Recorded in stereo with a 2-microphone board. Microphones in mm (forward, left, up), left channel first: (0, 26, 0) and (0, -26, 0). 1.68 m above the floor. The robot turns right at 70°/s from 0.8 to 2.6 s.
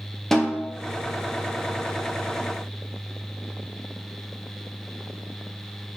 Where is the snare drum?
5° left (ahead or behind), 2.0 m.